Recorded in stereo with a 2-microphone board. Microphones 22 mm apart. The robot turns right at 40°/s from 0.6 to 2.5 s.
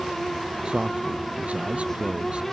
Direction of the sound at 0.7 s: 135° right.